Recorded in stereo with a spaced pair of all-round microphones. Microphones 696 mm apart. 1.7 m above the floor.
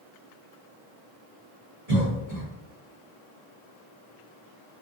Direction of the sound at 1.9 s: 60° right (ahead or behind).